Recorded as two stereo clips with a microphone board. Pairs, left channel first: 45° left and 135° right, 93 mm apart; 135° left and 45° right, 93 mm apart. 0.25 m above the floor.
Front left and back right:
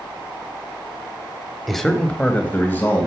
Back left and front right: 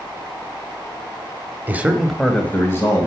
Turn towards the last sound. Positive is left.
turn(degrees=100)